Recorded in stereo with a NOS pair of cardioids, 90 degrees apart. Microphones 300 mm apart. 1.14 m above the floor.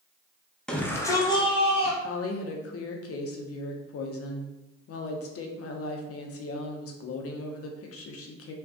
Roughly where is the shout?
Ahead.